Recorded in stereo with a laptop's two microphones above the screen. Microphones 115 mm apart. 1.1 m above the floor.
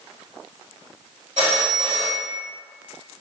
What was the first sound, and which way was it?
A phone ringing, 90° right.